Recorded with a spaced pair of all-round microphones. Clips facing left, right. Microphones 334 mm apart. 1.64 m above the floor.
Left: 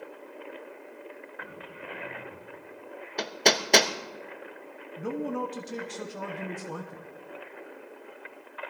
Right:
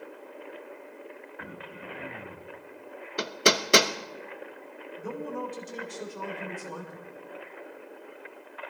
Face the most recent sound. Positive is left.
turn(degrees=80)